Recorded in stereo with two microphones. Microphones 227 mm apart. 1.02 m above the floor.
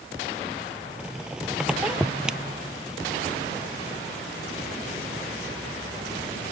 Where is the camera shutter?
I don't hear a camera shutter.